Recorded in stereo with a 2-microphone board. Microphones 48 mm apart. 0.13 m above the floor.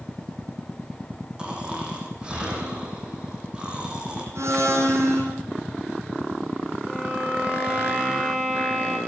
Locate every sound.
1.4 s snoring: 20° right (ahead or behind), 5 m
4.3 s a blender: 75° right (ahead or behind), 5.5 m
6.9 s a violin: 5° left (ahead or behind), 7 m